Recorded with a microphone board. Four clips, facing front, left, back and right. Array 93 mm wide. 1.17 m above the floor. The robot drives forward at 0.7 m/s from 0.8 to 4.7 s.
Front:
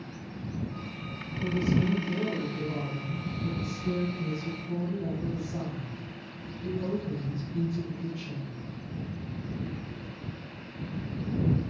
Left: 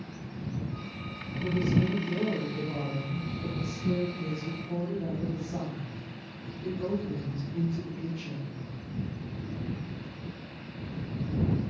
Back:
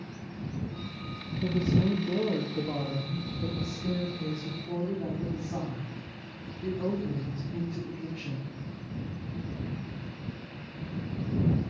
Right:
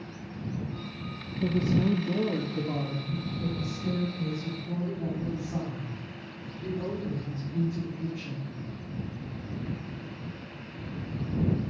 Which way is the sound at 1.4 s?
105° right.